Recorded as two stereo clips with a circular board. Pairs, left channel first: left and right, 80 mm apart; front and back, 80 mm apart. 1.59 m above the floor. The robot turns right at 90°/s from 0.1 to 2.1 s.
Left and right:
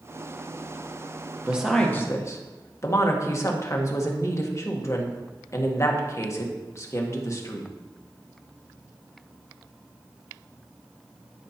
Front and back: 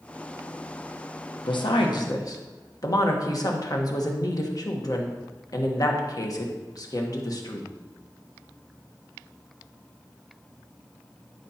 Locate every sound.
1.4 s a woman speaking: 20° right, 1.3 m; by 7.7 s 40° left, 1.3 m